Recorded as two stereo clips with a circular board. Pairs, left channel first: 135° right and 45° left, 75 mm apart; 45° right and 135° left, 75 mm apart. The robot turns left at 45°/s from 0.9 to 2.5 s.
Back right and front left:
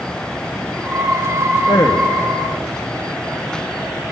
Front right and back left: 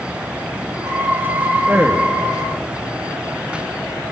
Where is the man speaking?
155° right, 1.1 m; by 2.2 s straight behind, 1.1 m.